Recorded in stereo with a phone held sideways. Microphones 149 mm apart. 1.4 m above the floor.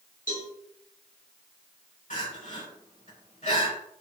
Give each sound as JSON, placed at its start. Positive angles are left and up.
{"t": 0.3, "sound": "a cowbell", "side_deg": 75, "distance_m": 4.5}
{"t": 2.1, "sound": "crying", "side_deg": 60, "distance_m": 4.0}